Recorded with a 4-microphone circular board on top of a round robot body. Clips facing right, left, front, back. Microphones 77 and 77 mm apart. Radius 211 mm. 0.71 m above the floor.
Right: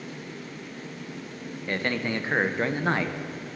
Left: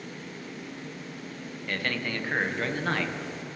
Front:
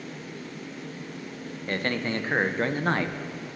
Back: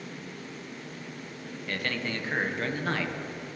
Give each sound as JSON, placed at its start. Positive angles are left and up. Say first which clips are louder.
{"t": 1.7, "sound": "a man speaking", "louder": "right 4 dB, front 4 dB", "azimuth_deg": -35, "distance_m": 0.8}